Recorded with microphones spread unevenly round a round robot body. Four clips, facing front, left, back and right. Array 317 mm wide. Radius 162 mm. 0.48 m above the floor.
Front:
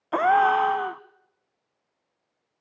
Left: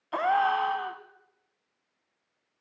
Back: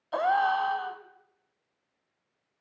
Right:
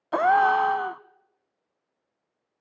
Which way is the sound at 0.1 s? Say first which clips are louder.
Right 5 dB, front 6 dB; 35° right.